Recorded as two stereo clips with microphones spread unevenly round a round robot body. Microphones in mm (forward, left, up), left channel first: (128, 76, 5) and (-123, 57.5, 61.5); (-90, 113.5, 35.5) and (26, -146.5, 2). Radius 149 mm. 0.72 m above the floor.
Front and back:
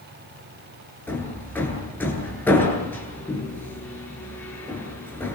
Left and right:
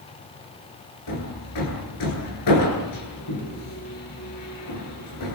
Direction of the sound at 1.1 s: 85° left.